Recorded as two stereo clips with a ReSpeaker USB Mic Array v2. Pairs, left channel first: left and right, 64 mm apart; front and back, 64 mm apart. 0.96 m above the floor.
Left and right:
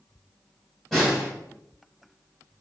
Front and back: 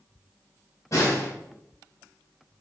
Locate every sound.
0.9 s a snare drum: 10° left, 1.1 m